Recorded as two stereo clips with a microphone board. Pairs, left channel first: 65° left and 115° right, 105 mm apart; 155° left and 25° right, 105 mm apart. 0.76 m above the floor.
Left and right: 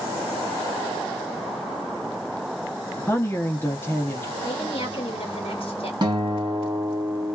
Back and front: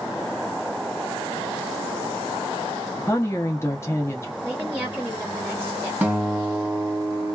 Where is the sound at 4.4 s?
80° left, 0.9 m.